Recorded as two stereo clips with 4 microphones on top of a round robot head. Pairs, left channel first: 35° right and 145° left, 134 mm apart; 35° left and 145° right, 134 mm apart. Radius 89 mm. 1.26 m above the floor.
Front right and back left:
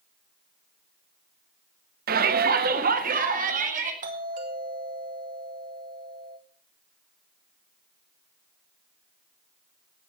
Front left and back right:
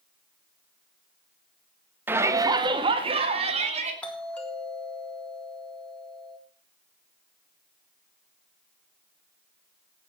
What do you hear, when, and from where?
2.1 s a shout: 140° left, 1.4 m; by 3.9 s 175° left, 3.5 m
4.0 s a doorbell: 115° left, 3.5 m